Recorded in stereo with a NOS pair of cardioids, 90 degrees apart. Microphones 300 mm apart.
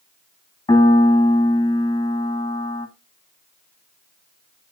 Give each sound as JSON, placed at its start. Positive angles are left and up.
{"t": 0.7, "sound": "a piano", "azimuth_deg": 20, "distance_m": 1.9}